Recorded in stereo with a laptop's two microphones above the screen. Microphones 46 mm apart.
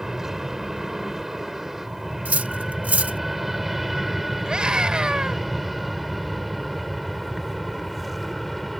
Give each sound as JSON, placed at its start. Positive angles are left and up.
{"t": 0.0, "sound": "an aircraft", "side_deg": -10}
{"t": 2.2, "sound": "cutlery clinking", "side_deg": -40}
{"t": 4.5, "sound": "a scream", "side_deg": -20}